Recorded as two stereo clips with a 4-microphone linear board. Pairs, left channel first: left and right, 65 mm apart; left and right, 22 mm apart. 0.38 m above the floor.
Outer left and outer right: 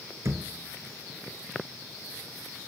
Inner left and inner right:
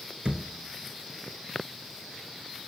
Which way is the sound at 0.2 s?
55° right (ahead or behind).